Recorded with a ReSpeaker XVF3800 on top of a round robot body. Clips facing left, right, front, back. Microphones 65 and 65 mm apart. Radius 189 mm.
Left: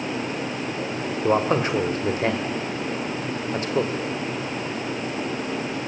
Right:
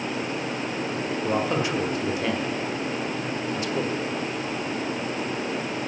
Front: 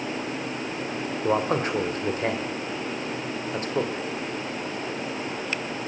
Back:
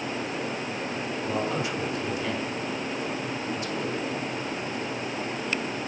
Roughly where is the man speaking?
Ahead left.